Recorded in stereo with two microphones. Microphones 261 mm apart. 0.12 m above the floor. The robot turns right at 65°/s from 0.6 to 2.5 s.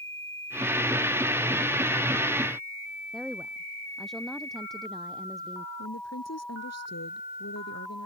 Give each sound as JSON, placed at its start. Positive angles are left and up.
{"t": 3.1, "sound": "a woman speaking", "side_deg": 0}
{"t": 5.8, "sound": "a woman speaking", "side_deg": 75}